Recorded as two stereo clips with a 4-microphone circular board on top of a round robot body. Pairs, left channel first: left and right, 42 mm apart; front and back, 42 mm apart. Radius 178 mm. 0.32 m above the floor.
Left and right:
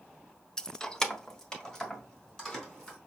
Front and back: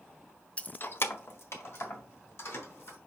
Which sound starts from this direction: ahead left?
Keys jangling, at 0.6 s.